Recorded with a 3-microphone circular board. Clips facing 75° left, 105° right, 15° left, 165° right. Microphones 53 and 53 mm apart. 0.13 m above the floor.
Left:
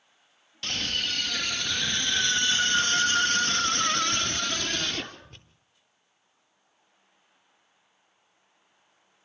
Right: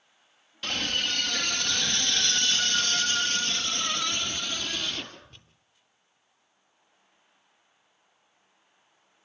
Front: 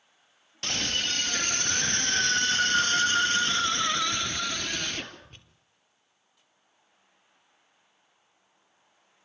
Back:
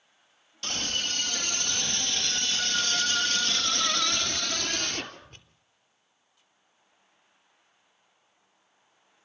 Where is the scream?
25° right, 3.5 m; by 5.4 s 105° left, 3.5 m.